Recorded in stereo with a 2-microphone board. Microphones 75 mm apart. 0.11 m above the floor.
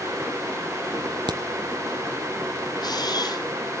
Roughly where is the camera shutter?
Left.